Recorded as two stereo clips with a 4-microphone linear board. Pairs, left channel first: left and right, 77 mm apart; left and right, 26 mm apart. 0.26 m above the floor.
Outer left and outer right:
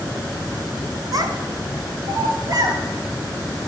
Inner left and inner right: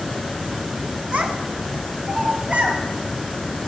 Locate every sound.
1.1 s a child speaking: 55° right (ahead or behind), 1.8 m; by 2.8 s 50° right (ahead or behind), 2.5 m